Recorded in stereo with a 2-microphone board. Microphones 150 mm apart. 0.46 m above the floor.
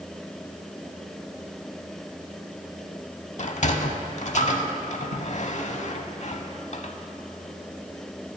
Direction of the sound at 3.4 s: 50° left (ahead or behind).